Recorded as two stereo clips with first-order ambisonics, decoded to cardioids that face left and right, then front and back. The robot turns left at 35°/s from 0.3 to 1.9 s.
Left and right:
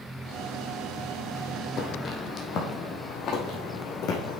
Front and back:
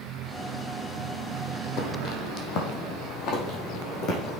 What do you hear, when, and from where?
1.8 s footsteps: 35° left, 2.0 m; by 4.4 s 45° left, 3 m